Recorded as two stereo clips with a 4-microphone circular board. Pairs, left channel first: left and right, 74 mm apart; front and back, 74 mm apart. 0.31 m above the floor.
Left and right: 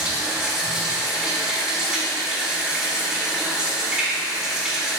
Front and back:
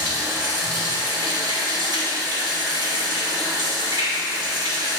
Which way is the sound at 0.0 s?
170° right.